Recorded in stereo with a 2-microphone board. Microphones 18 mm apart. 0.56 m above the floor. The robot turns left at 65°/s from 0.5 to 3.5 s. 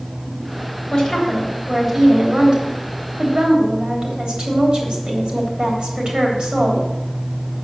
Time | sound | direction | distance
0.9 | a woman speaking | 55° left | 3 m